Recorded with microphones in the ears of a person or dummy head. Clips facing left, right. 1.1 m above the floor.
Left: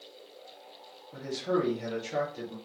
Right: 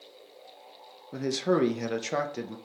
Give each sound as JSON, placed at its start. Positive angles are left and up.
{"t": 1.1, "sound": "a man speaking", "side_deg": -75, "distance_m": 0.7}